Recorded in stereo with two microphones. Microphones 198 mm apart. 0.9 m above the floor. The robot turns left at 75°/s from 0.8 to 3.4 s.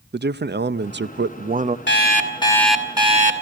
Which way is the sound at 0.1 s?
70° right.